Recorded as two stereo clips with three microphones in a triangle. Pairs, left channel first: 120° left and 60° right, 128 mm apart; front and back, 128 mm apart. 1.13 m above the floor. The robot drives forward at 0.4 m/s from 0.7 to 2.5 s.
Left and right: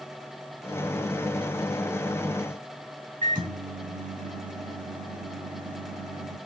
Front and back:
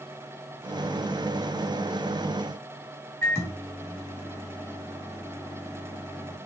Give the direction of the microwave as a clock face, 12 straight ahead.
2 o'clock.